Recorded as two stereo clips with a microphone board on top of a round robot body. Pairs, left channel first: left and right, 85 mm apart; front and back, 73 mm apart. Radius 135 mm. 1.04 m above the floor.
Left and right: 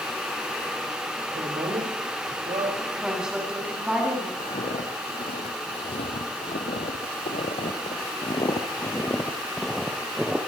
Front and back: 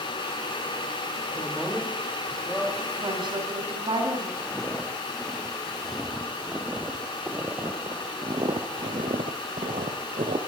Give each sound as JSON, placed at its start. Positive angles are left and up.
{"t": 1.4, "sound": "a woman speaking", "azimuth_deg": -90, "distance_m": 5.5}
{"t": 3.0, "sound": "a woman speaking", "azimuth_deg": -170, "distance_m": 8.5}
{"t": 4.4, "sound": "footsteps", "azimuth_deg": 80, "distance_m": 4.0}